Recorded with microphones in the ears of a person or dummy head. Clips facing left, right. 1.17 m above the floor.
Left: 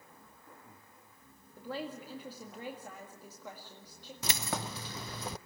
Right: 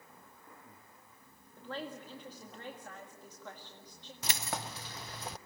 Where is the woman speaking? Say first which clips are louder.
Left 2 dB; 10° left (ahead or behind), 1.8 m.